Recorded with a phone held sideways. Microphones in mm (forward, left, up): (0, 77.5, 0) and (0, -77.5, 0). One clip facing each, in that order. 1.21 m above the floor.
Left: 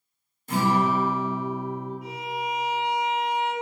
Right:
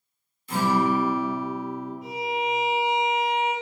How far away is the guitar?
About 1.3 m.